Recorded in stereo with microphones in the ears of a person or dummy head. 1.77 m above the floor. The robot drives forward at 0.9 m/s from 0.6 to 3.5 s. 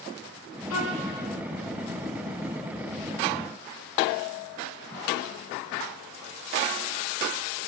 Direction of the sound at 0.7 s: 75° left (ahead or behind).